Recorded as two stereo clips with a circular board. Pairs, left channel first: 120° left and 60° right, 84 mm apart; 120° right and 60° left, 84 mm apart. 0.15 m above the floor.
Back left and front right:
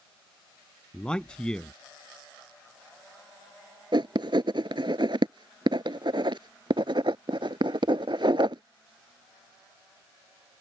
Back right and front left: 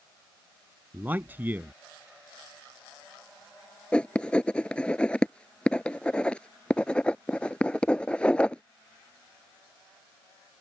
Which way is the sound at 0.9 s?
55° left.